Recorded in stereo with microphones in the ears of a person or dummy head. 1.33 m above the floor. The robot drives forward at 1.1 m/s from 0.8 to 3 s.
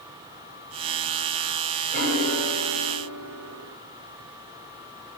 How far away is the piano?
About 6 m.